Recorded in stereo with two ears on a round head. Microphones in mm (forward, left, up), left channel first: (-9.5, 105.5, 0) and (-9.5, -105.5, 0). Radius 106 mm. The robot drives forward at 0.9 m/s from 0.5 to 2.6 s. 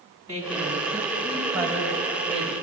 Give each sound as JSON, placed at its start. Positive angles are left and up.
{"t": 0.3, "sound": "a woman speaking", "side_deg": -15, "distance_m": 4.0}